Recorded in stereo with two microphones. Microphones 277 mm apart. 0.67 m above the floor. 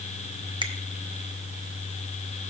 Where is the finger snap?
15° right (ahead or behind), 0.7 m.